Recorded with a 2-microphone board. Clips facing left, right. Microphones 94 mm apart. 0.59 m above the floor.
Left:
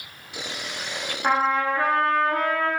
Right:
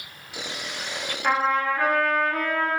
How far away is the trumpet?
About 0.7 m.